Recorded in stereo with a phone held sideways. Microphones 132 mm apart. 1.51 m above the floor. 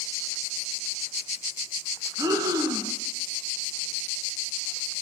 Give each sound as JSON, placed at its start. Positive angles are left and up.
{"t": 2.2, "sound": "breathing", "side_deg": -25, "distance_m": 1.2}